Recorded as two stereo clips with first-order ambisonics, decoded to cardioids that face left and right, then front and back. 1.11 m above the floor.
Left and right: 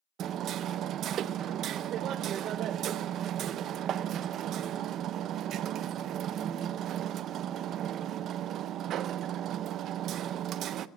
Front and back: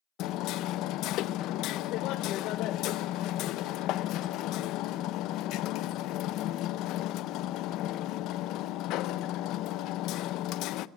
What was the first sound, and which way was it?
Hammering, 40° right.